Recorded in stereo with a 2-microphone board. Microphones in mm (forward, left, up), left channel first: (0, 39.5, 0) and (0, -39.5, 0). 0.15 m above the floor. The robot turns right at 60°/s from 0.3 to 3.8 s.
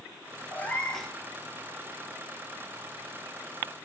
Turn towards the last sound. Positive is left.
turn(degrees=-10)